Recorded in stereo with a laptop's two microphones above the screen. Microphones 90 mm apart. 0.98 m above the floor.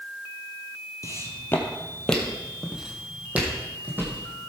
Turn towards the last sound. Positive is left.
turn(degrees=-25)  # may be behind; listen again after turning